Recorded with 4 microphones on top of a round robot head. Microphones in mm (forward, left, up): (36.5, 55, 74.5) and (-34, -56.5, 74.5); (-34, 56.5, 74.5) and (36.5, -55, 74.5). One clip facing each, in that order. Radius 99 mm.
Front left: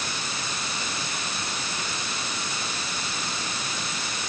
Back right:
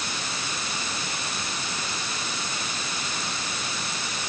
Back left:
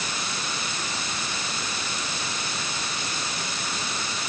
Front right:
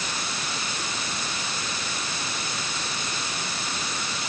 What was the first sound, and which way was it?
Only background noise.